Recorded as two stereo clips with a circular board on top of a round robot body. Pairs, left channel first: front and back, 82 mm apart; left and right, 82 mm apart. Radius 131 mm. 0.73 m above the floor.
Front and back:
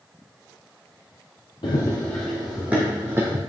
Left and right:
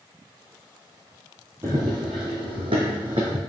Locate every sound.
1.6 s running footsteps: 30° right, 1.1 m; by 3.4 s 115° right, 2.5 m